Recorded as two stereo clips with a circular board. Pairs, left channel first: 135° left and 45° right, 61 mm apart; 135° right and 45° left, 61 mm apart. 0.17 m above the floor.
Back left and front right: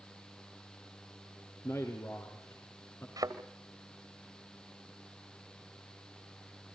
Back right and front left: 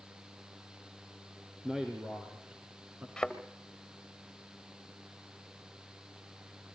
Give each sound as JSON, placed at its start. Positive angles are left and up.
{"t": 1.6, "sound": "a man speaking", "azimuth_deg": 125, "distance_m": 2.5}
{"t": 3.2, "sound": "a thud", "azimuth_deg": -50, "distance_m": 2.5}